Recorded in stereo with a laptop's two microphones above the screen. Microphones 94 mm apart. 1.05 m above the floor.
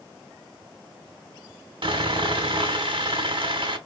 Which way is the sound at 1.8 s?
60° right (ahead or behind).